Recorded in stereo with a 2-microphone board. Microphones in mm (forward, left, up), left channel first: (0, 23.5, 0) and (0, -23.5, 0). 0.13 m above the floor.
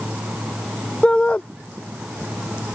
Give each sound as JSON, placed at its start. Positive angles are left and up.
{"t": 1.0, "sound": "a shout", "side_deg": 25}